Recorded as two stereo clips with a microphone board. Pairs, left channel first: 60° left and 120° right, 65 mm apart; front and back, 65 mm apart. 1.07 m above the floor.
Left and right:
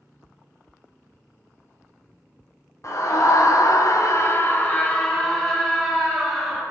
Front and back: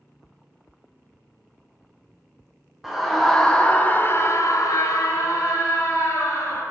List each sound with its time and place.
2.8 s a scream: 95° left, 1.0 m; by 6.6 s 35° right, 1.5 m